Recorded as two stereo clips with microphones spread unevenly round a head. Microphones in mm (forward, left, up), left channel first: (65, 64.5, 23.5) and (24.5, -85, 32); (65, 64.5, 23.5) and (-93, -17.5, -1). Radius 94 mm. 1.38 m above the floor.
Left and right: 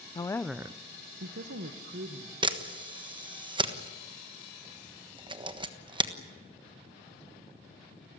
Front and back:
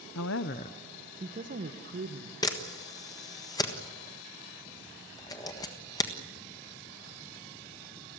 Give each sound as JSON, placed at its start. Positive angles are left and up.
{"t": 0.1, "sound": "a woman speaking", "azimuth_deg": 10, "distance_m": 0.8}
{"t": 2.4, "sound": "a camera shutter", "azimuth_deg": -45, "distance_m": 1.4}